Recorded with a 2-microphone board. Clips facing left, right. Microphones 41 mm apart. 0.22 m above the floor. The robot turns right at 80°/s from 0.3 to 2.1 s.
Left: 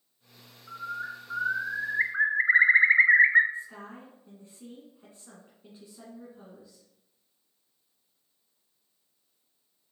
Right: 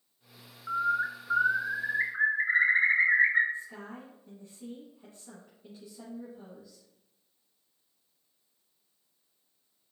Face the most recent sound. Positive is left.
turn(degrees=25)  # may be behind; listen again after turning